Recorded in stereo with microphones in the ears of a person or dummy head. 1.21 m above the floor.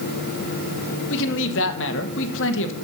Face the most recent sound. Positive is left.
turn(degrees=75)  # may be behind; listen again after turning